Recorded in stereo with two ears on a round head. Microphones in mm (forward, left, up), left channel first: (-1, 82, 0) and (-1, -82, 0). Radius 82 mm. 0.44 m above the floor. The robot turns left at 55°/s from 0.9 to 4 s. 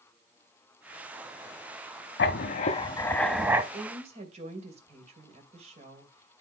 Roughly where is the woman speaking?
Right.